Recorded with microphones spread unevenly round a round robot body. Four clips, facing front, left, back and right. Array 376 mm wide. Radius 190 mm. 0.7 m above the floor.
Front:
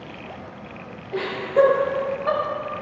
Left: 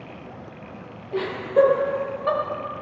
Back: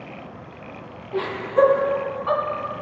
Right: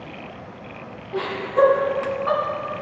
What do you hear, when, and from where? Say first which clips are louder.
1.1 s laughter: left 2 dB, front 1 dB; 60° left, 4.5 m